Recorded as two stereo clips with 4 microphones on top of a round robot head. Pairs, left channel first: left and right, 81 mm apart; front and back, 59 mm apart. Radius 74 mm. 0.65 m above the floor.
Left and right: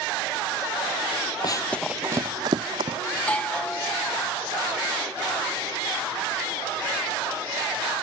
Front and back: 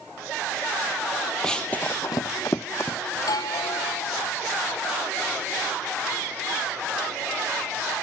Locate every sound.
1.4 s running footsteps: 75° left; by 3.0 s 65° right
3.1 s a doorbell: 15° left